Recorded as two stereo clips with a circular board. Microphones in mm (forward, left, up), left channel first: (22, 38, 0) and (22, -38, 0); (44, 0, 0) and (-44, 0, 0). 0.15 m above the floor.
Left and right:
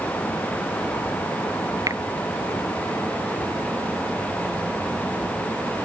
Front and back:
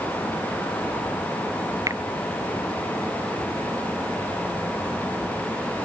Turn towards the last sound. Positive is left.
turn(degrees=-130)